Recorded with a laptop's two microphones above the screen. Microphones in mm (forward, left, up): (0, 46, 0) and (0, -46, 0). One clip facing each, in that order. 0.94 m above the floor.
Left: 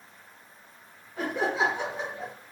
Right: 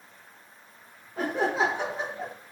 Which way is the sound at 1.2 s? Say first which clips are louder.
Right 1 dB; 45° right (ahead or behind).